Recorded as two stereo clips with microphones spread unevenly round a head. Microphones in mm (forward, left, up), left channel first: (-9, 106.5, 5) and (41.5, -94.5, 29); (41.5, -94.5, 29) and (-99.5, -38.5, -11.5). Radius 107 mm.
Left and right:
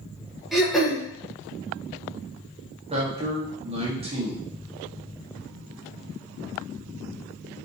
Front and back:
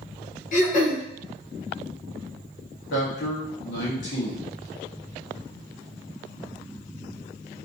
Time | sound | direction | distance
0.5 | throat clearing | 20° left | 1.0 m
2.9 | a man speaking | 10° right | 1.4 m